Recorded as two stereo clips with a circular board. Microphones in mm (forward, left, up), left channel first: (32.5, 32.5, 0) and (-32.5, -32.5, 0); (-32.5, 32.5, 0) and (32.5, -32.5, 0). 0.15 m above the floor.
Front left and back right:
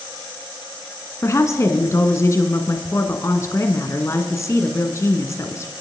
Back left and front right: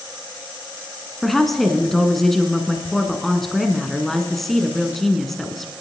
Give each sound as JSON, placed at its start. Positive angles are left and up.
{"t": 1.2, "sound": "a woman speaking", "azimuth_deg": 50, "distance_m": 1.2}